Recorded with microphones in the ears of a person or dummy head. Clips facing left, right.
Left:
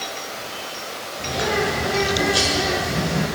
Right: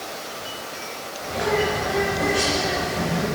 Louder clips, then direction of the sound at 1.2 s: Even; 60° left (ahead or behind).